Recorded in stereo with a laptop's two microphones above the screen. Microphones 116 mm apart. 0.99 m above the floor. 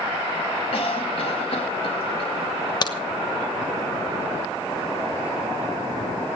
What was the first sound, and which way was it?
A cough, 55° left (ahead or behind).